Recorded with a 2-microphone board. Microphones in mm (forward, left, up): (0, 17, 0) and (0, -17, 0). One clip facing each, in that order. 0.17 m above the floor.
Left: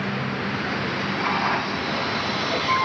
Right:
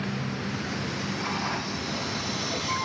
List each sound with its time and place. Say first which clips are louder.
0.0 s a vehicle: left 5 dB; 30° left (ahead or behind)